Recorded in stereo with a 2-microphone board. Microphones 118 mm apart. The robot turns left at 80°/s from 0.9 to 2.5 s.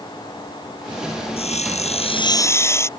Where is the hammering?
No hammering in this recording.